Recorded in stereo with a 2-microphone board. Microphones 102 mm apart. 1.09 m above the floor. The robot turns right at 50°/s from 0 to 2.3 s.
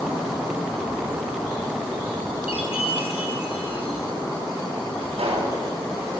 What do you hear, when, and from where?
2.5 s a chime: 85° left, 4.5 m
5.1 s a pop: 85° right, 8 m